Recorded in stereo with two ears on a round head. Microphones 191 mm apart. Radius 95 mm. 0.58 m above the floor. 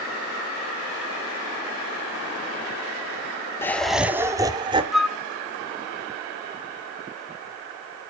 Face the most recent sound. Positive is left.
turn(degrees=0)  # may be behind; listen again after turning